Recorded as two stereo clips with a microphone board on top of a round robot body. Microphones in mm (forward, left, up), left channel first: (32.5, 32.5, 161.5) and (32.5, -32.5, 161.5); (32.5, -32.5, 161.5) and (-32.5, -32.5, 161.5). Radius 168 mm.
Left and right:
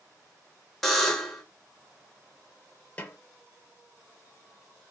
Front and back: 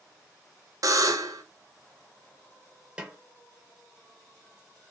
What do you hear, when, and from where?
0.8 s a buzzer: 175° left, 0.7 m
3.0 s a snare drum: 125° left, 0.9 m